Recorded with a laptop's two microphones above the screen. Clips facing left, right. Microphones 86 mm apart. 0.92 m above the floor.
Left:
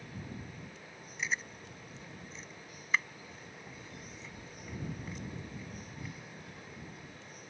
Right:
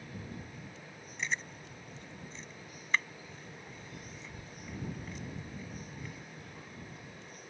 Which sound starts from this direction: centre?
Chewing, at 1.2 s.